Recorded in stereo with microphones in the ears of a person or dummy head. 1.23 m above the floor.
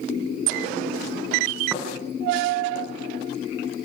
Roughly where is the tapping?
Centre.